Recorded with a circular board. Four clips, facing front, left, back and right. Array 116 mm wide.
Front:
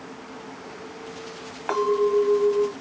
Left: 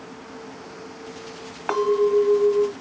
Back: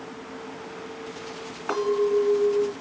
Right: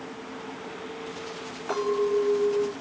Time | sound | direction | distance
1.7 | a clink | 65° left | 1.6 m